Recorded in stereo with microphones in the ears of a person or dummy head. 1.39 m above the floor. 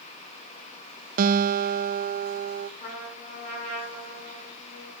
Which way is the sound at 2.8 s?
40° left (ahead or behind).